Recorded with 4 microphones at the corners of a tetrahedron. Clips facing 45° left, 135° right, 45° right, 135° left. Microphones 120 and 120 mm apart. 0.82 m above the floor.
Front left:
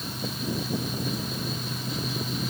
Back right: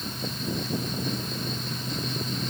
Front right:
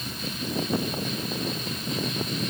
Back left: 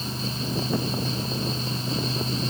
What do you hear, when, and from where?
Only background noise.